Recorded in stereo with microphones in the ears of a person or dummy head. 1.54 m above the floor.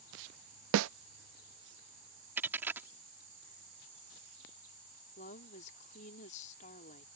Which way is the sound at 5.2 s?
45° left (ahead or behind).